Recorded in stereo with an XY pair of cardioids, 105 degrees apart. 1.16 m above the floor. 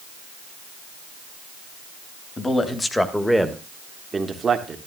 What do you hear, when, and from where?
2.4 s a man speaking: 30° left, 2 m; by 4.8 s 45° right, 1.9 m